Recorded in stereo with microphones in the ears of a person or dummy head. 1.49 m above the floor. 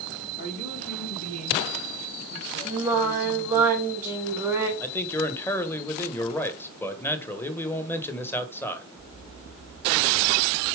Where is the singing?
10° right (ahead or behind), 1.7 m.